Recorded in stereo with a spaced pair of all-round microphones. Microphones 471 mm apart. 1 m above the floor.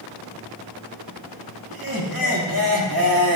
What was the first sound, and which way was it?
Laughter, 45° right (ahead or behind).